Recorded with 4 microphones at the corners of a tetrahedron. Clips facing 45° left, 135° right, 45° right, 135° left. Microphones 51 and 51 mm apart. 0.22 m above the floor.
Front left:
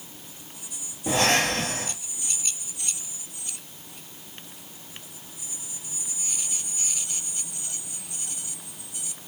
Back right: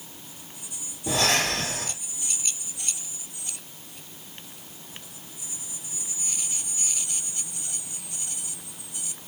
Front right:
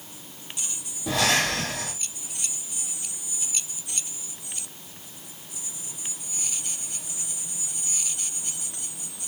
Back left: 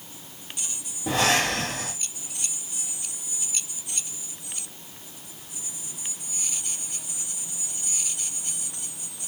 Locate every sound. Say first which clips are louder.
1.1 s breathing: front left 2 dB, back left 1 dB; 80° left, 2.5 m